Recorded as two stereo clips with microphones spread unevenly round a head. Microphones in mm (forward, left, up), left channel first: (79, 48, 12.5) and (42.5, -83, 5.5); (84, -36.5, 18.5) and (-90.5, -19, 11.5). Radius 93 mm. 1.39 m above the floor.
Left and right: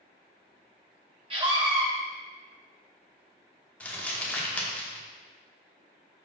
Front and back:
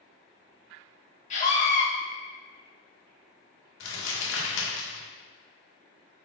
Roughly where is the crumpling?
Ahead.